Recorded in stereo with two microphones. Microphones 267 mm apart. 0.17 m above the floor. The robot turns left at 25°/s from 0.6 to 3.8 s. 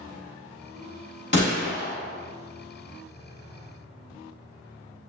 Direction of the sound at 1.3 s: 40° left (ahead or behind).